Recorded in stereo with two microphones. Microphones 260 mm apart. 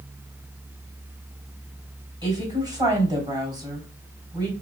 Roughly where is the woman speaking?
Centre.